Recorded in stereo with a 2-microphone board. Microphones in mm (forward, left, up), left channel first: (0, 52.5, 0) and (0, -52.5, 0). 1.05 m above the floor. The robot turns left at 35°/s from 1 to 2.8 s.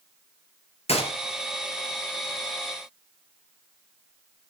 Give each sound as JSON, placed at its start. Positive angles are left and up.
{"t": 0.9, "sound": "a gunshot", "side_deg": 75, "distance_m": 3.0}